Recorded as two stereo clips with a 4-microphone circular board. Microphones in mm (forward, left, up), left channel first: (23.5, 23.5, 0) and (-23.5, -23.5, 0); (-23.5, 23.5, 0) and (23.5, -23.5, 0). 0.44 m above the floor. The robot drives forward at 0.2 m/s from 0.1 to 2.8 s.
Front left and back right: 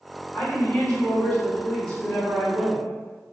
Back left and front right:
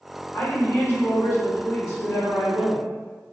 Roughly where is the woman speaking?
Left.